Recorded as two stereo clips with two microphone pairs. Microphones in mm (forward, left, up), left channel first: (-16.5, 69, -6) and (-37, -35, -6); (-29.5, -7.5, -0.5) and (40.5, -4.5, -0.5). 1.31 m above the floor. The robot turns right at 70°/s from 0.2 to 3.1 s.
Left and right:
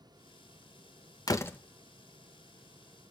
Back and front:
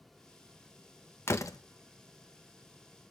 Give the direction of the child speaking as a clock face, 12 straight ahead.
I don't hear a child speaking.